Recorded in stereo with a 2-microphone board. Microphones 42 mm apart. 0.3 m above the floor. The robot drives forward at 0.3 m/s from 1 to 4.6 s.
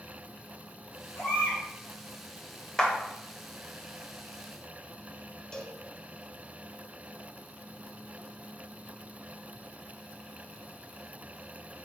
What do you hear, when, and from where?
1.1 s a baby crying: 75° left (ahead or behind), 2 m
2.8 s a clap: 20° left (ahead or behind), 0.8 m
5.5 s a cowbell: 15° left (ahead or behind), 0.6 m